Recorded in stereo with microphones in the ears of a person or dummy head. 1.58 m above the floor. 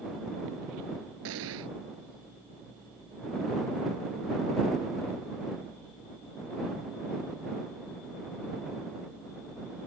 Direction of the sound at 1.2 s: 70° right (ahead or behind).